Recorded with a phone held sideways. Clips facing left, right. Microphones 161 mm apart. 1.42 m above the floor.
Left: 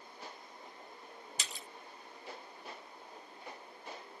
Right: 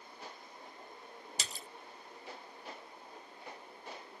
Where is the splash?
40° right (ahead or behind).